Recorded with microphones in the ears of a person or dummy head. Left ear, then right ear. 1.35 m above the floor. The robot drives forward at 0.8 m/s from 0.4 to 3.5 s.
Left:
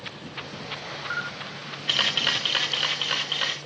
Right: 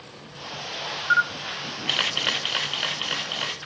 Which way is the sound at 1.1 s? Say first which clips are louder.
Right 12 dB; 45° right (ahead or behind).